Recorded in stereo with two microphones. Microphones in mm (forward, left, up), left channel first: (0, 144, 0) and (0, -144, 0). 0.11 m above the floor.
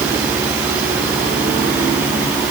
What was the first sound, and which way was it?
Only background noise.